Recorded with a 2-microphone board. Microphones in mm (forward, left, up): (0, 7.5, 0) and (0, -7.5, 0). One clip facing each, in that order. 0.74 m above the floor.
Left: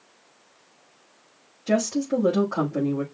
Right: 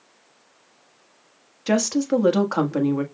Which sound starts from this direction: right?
A woman speaking, at 1.7 s.